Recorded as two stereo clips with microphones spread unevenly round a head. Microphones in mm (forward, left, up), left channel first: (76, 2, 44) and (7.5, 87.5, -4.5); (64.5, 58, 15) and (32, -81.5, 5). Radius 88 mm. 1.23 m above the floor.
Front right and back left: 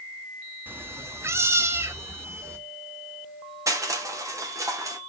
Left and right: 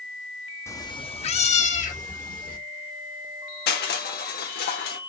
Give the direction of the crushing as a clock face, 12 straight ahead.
10 o'clock.